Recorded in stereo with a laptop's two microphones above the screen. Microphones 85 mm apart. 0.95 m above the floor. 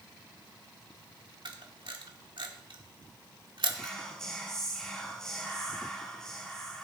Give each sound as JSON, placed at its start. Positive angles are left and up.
{"t": 1.4, "sound": "a camera shutter", "side_deg": -70, "distance_m": 1.7}
{"t": 3.7, "sound": "whispering", "side_deg": 10, "distance_m": 4.5}